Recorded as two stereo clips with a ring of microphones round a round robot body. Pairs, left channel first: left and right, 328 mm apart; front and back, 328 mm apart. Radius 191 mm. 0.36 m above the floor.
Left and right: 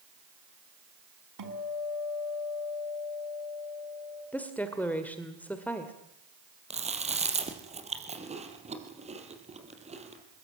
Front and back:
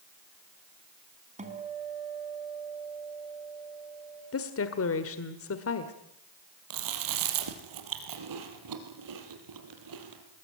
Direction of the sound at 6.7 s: 160° right.